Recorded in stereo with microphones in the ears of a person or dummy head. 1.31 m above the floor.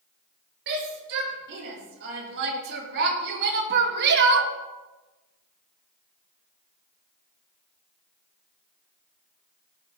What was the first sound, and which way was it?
A shout, 65° right (ahead or behind).